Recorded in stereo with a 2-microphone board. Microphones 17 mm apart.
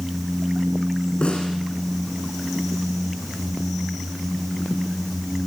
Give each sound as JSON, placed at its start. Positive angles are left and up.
{"t": 1.2, "sound": "a snare drum", "side_deg": 85, "distance_m": 5.0}